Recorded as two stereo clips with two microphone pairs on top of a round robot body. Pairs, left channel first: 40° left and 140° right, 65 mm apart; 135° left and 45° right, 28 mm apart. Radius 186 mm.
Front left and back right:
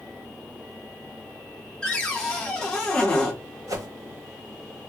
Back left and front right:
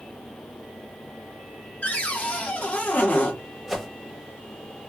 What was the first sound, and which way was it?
A cupboard door, 115° left.